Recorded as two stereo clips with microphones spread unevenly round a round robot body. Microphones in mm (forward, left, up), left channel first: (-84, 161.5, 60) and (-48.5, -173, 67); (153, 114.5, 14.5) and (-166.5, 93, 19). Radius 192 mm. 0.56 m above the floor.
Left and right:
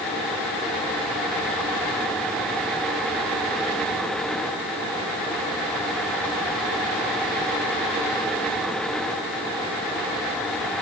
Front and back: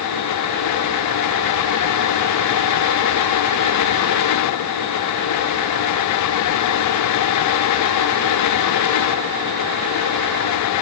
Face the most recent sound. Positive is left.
No sound to turn to.